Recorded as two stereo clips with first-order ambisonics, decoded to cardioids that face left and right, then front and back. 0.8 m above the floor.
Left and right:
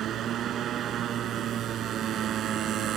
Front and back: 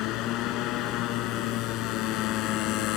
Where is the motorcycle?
35° right.